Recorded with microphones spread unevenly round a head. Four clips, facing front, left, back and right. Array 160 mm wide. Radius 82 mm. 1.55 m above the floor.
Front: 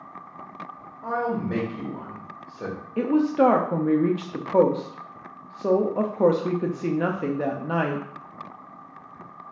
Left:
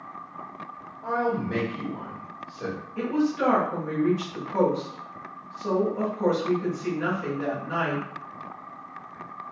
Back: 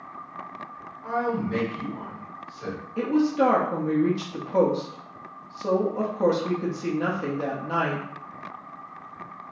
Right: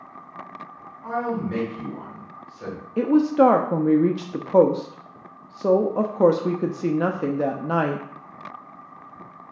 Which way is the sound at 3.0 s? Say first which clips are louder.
Right 8 dB, front 2 dB; 65° right.